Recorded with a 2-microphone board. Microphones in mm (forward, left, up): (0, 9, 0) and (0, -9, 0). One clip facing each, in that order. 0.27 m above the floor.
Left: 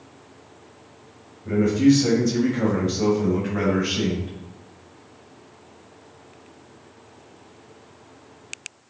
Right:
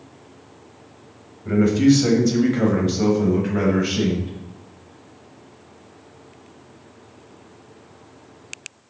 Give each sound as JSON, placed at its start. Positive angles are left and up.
{"t": 1.4, "sound": "a man speaking", "side_deg": -35, "distance_m": 1.1}